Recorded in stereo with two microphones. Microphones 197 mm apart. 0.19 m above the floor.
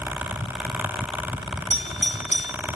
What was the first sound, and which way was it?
A doorbell, 35° left (ahead or behind).